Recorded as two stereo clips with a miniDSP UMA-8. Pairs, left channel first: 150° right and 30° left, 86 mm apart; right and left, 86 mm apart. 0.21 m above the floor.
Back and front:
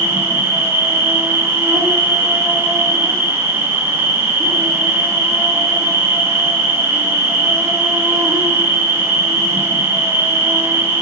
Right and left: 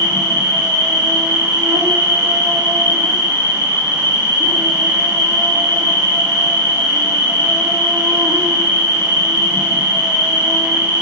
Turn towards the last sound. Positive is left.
turn(degrees=85)